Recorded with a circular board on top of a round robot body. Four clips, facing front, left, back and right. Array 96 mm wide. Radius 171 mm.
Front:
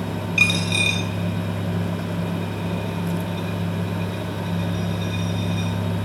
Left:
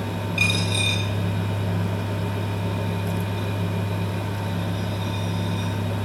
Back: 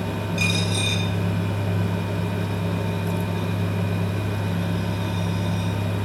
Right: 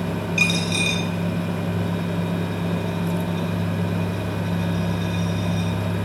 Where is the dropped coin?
20° right, 6 m.